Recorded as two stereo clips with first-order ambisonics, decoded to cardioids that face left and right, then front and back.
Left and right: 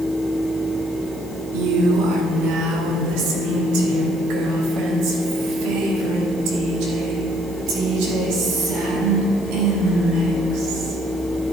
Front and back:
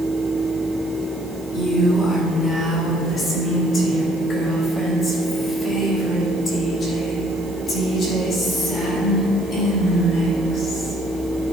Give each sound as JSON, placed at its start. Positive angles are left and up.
{"t": 1.5, "sound": "a woman speaking", "azimuth_deg": -70, "distance_m": 1.8}